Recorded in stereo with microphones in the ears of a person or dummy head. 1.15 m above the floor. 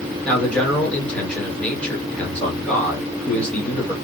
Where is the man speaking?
5° left (ahead or behind), 1.4 m.